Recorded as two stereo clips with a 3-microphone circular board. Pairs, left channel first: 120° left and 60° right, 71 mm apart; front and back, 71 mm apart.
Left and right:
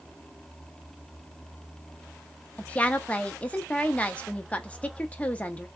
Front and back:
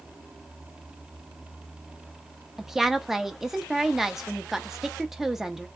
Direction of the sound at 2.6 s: 100° left.